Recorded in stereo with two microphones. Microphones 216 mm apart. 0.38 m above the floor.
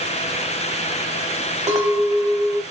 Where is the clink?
30° right (ahead or behind), 1.0 m.